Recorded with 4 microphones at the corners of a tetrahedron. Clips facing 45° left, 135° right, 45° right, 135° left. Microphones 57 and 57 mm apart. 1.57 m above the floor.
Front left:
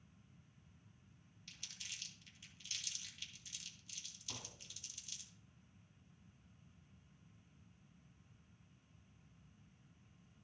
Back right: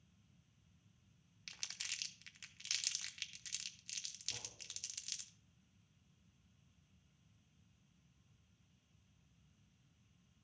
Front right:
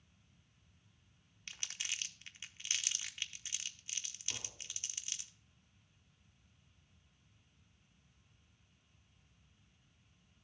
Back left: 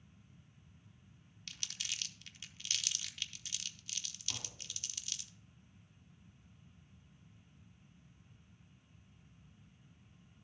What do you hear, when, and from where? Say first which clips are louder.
1.5 s crumpling: back right 4 dB, front right 1 dB; 110° right, 0.6 m
4.3 s tapping: front left 1 dB, even; 65° left, 2 m